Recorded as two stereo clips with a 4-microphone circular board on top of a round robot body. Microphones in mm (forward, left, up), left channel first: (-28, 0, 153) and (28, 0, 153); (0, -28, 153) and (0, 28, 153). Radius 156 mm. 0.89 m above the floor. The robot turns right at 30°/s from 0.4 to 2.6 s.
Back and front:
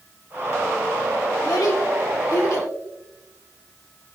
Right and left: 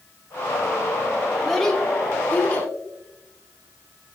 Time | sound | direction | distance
1.4 | a child speaking | straight behind | 1.6 m